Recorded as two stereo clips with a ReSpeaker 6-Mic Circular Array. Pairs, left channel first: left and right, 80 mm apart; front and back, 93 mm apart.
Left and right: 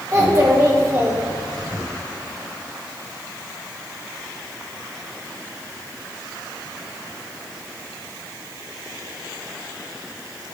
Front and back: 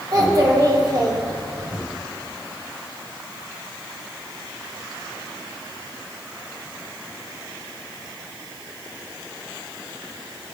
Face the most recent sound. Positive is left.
turn(degrees=-140)